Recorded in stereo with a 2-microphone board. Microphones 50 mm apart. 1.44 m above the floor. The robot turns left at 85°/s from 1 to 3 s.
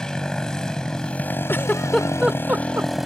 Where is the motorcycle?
170° left; by 3.1 s straight ahead.